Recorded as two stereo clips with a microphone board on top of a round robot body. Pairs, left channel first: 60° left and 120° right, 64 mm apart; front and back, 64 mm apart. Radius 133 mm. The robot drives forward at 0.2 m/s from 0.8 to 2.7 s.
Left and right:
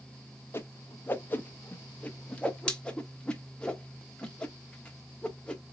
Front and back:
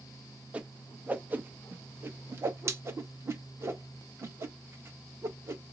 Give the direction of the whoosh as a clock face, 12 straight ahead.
8 o'clock.